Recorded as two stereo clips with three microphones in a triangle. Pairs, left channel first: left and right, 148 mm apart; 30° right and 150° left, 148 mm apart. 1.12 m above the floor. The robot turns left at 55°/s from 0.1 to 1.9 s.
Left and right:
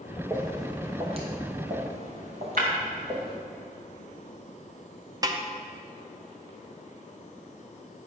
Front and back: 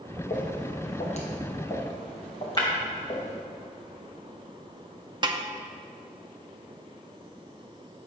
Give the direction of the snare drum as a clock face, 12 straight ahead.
5 o'clock.